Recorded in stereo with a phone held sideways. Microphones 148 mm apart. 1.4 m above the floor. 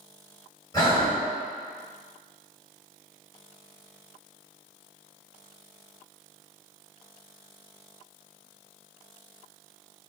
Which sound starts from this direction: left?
Breathing, at 0.7 s.